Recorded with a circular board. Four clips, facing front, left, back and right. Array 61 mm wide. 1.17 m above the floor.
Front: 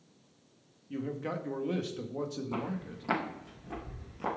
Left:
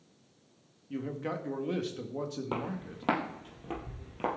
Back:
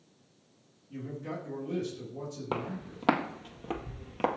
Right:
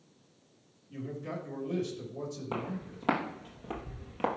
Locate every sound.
0.9 s a man speaking: 50° left, 1.5 m
2.5 s footsteps: 165° left, 2.5 m; by 4.4 s 165° right, 1.7 m